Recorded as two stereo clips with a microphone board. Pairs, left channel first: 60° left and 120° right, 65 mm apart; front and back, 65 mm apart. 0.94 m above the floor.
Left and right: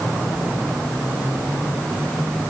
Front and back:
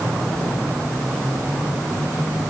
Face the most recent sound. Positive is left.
No sound to turn to.